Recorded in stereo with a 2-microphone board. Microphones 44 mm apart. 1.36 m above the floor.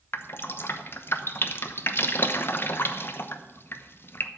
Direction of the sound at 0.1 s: 55° left (ahead or behind).